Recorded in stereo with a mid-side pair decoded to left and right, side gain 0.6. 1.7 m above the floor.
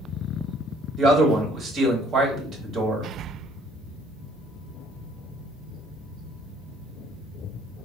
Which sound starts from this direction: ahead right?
A man speaking, at 1.0 s.